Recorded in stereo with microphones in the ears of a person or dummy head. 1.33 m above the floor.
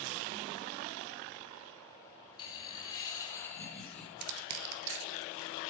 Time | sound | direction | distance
2.4 | laughter | 25° left (ahead or behind) | 2.5 m
4.2 | crushing | 70° right (ahead or behind) | 1.6 m